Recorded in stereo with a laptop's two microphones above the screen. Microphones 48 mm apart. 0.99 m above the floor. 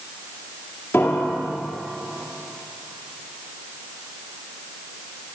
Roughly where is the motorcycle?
No motorcycle in this recording.